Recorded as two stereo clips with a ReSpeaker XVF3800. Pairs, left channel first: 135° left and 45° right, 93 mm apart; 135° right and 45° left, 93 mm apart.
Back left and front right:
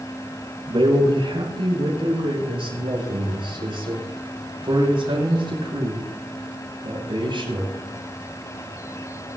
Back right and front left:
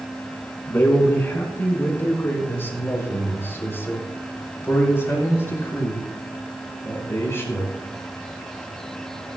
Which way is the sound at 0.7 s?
65° right.